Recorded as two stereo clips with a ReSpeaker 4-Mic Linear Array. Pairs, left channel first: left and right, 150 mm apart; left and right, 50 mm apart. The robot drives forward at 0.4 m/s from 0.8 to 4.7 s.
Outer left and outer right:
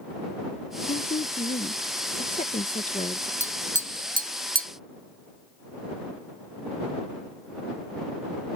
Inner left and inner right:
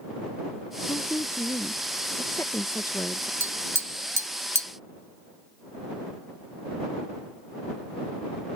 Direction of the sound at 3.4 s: 50° right (ahead or behind).